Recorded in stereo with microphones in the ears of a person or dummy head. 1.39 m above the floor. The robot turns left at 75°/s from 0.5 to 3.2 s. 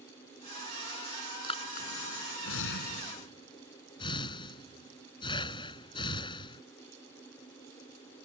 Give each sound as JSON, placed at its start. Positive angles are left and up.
{"t": 1.4, "sound": "breathing", "side_deg": 25}